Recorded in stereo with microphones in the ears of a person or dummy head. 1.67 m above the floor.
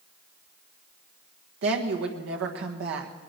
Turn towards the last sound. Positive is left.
turn(degrees=-70)  # may be behind; listen again after turning